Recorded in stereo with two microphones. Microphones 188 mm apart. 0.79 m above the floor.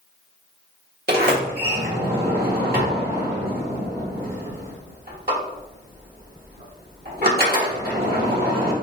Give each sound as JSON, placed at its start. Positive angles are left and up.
{"t": 1.1, "sound": "a sliding door", "side_deg": -55, "distance_m": 1.5}